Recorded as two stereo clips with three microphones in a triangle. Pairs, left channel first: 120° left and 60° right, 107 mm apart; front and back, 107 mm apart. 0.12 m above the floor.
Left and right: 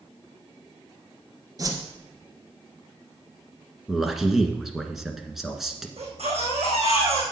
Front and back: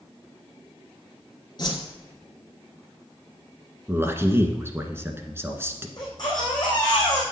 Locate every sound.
1.6 s a whoosh: 20° right, 1.7 m
3.9 s a man speaking: 145° right, 1.4 m
6.0 s a baby crying: 50° right, 3.5 m